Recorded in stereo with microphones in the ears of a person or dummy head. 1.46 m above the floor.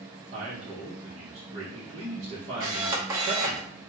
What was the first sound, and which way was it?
A man speaking, 35° right (ahead or behind).